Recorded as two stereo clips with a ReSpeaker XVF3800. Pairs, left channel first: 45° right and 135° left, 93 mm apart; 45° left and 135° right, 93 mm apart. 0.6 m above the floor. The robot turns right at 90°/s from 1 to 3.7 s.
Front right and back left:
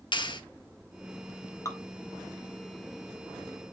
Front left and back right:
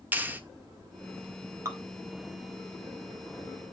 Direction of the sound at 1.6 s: 85° right.